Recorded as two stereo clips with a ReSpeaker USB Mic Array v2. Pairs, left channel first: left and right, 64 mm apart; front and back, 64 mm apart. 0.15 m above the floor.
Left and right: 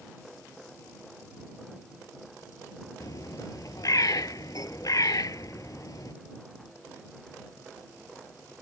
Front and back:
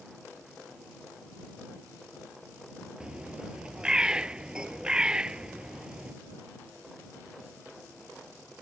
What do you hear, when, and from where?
3.0 s a bird: 105° left